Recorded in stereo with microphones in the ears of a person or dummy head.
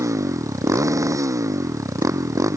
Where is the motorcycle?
15° right (ahead or behind).